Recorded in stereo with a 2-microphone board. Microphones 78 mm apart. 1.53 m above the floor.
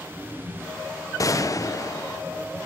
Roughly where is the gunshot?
Left.